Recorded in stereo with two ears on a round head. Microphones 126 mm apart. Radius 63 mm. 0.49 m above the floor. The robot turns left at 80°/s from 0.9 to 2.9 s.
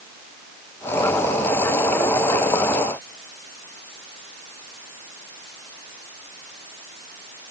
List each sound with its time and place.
Only background noise.